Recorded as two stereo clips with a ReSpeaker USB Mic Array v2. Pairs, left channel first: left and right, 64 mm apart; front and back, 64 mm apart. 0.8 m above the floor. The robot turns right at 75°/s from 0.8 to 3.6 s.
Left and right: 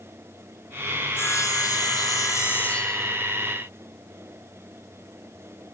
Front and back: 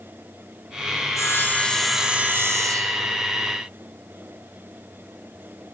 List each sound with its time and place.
1.1 s sawing: 30° left, 0.6 m; by 3.2 s 170° right, 0.6 m